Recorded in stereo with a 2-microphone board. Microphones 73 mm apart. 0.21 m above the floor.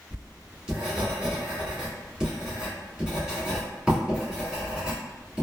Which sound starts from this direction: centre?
Writing, at 0.1 s.